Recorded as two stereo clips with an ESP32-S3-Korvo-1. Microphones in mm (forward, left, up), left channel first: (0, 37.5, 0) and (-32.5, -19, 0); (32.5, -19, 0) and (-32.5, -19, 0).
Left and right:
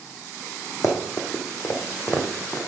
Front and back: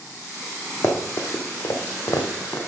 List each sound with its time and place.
0.8 s running footsteps: 40° left, 1.4 m; by 2.6 s 10° right, 1.3 m